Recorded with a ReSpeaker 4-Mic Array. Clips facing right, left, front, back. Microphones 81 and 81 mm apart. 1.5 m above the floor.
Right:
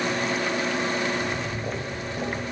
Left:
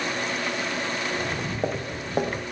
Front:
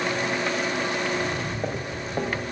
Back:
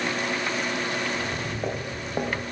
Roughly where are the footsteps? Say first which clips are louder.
Right 1 dB, front 3 dB; left.